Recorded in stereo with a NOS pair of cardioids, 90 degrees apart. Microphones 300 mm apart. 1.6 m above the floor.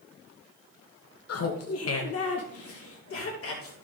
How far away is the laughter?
About 1.4 m.